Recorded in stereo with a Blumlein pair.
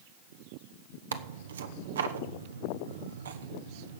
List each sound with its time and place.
1.1 s tearing paper: 65° right, 0.9 m